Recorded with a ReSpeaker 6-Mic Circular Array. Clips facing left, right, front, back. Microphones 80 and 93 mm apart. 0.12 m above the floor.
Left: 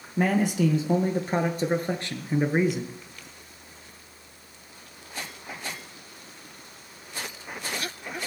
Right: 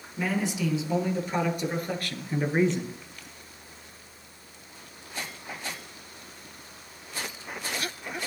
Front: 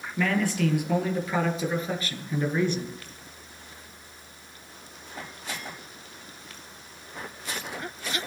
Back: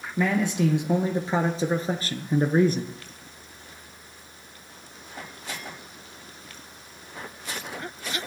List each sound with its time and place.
0.2 s a man speaking: 110° left, 2.5 m; by 2.9 s 175° left, 1.5 m